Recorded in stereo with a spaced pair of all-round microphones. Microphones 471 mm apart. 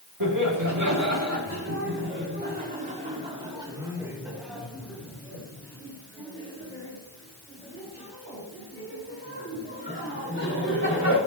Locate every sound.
0.2 s laughter: 45° right (ahead or behind), 3 m; by 11.2 s 25° left (ahead or behind), 6.5 m